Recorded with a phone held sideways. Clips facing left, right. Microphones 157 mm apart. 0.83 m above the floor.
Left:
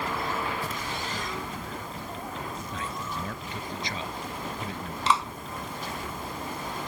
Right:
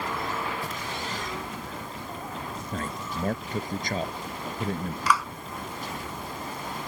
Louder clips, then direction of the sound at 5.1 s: Even; 25° left (ahead or behind).